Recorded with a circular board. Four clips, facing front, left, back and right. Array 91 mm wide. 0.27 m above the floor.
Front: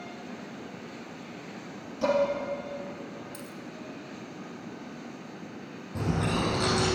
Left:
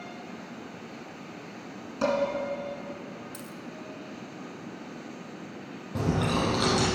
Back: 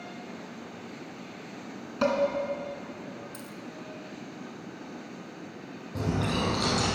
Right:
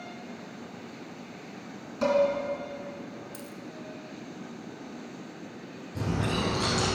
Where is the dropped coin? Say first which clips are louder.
Even, front 1 dB; 90° left, 1.0 m.